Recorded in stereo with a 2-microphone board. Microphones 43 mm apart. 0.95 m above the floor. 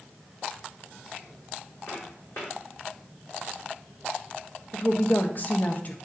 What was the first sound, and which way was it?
Footsteps, 65° left (ahead or behind).